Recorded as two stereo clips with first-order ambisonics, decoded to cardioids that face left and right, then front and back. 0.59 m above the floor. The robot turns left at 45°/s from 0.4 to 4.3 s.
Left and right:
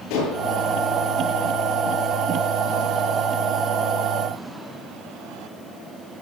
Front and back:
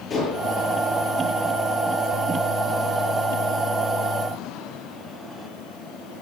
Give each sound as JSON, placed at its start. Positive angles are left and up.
{"t": 0.1, "sound": "dishes clattering", "azimuth_deg": 65, "distance_m": 8.5}